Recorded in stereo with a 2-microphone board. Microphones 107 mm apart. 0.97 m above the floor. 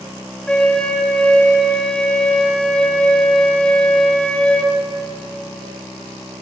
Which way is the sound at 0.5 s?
10° left (ahead or behind).